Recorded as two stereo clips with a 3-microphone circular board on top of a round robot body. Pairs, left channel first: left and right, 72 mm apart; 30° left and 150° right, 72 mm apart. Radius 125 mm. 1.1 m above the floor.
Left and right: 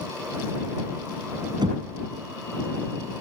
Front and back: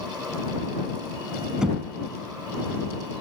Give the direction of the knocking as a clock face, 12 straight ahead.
2 o'clock.